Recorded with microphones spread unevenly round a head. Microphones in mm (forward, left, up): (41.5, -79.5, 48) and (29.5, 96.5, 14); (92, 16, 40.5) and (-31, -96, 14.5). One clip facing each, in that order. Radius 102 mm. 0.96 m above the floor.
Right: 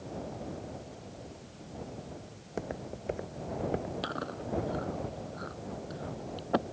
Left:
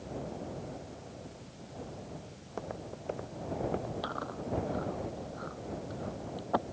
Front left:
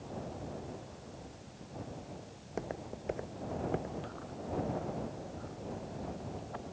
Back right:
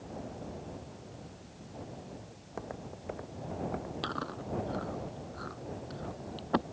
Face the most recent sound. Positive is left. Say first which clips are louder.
# right 1 dB, back right 4 dB
turn(degrees=-155)